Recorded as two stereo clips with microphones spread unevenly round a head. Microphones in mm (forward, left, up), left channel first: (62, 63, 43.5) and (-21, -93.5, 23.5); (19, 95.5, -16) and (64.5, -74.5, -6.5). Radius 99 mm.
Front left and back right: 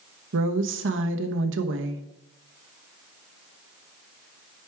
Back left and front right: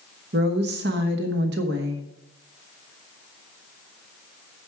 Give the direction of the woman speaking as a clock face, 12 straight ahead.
4 o'clock.